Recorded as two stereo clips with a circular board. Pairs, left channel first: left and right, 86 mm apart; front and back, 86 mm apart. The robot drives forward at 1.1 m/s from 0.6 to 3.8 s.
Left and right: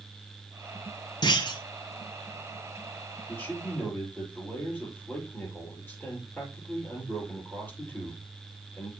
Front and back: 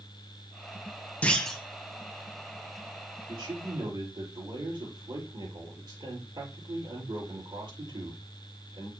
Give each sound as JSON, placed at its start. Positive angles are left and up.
{"t": 1.2, "sound": "a clunk", "azimuth_deg": 75, "distance_m": 1.6}
{"t": 3.3, "sound": "a man speaking", "azimuth_deg": 155, "distance_m": 5.5}